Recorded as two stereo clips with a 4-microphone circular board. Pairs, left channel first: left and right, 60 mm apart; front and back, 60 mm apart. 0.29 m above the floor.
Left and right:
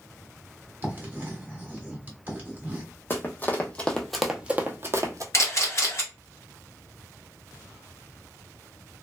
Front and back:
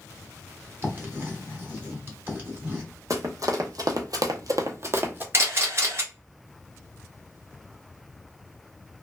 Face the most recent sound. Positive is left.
turn(degrees=130)